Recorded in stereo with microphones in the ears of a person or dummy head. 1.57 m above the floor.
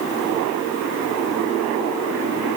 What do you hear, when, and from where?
Only background noise.